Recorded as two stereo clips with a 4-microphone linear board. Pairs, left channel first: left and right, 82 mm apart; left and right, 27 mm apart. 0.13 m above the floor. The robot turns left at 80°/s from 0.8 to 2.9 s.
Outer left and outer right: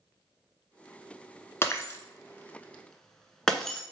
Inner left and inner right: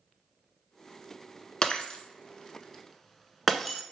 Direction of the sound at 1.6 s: 35° left (ahead or behind).